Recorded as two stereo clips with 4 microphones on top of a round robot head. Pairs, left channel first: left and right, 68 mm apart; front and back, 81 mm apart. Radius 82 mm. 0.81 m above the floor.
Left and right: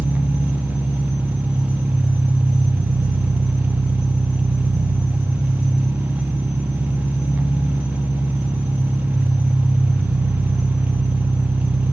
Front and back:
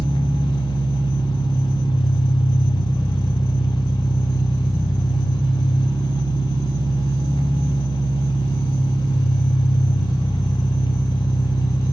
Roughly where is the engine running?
Ahead.